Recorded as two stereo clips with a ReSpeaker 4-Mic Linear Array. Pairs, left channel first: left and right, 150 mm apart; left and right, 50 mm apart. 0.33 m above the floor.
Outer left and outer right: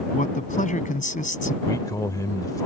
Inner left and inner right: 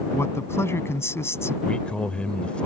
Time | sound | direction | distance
0.1 | a man speaking | 60° left (ahead or behind) | ?
1.6 | a man speaking | 20° left (ahead or behind) | ?